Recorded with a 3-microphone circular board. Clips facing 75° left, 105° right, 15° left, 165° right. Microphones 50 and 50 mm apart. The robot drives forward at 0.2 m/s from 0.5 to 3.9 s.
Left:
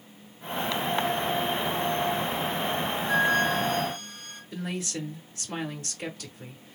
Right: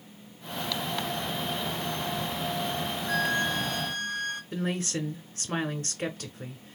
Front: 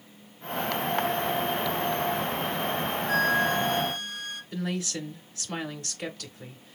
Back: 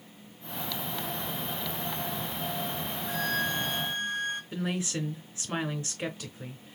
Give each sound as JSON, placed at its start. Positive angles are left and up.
{"t": 3.1, "sound": "a flute", "azimuth_deg": -120, "distance_m": 1.0}
{"t": 4.5, "sound": "a woman speaking", "azimuth_deg": -115, "distance_m": 1.1}